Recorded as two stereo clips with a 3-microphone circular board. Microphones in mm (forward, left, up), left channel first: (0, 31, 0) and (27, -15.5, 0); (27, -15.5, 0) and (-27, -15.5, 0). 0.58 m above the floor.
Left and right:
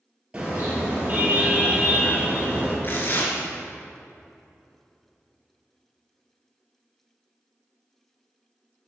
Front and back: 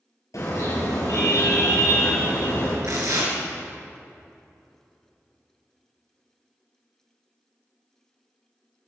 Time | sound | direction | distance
0.3 | a car horn | 10° left | 6 m
2.8 | tearing paper | 165° left | 3.5 m